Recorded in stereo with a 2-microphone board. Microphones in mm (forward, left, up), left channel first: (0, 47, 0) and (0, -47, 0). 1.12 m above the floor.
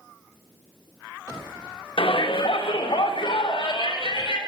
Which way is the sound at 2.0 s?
70° left (ahead or behind).